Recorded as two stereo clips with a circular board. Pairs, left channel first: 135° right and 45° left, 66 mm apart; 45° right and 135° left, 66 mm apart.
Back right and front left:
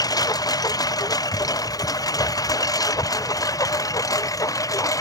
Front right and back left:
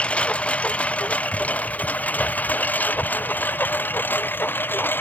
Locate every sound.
0.0 s a lawn mower: 120° right; by 5.0 s 105° right